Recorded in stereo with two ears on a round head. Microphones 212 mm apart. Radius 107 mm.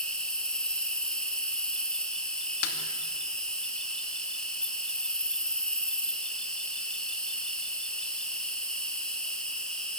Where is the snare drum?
65° left (ahead or behind), 2.5 m.